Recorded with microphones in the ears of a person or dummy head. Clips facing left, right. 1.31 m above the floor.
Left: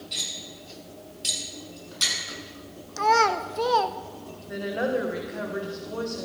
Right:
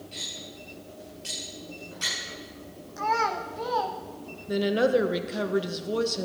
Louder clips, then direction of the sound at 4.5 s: Right 5 dB; 50° right (ahead or behind).